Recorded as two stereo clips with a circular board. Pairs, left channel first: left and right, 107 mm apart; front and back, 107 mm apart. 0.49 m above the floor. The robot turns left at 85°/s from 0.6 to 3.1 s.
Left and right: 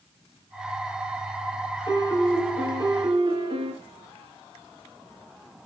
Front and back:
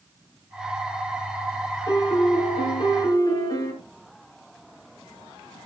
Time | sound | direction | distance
1.9 | a piano | 50° left | 3.5 m